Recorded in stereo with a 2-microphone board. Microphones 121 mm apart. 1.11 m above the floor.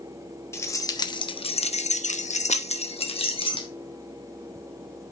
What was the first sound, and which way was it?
Keys jangling, 25° left (ahead or behind).